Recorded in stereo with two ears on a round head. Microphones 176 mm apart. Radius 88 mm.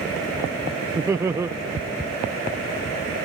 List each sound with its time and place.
0.9 s laughter: 15° right (ahead or behind)